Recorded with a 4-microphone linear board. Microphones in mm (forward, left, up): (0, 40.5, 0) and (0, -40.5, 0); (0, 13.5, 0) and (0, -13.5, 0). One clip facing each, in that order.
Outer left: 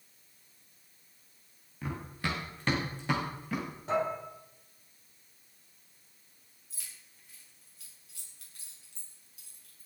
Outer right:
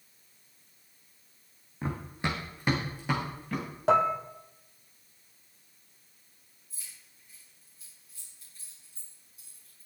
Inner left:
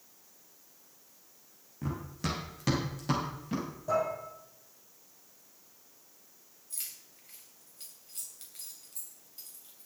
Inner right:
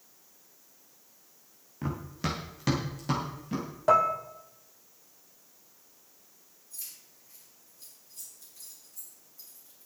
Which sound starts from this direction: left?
Keys jangling, at 6.7 s.